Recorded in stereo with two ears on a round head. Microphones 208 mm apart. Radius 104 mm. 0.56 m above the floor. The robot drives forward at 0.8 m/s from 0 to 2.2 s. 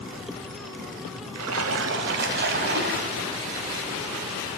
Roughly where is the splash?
Right.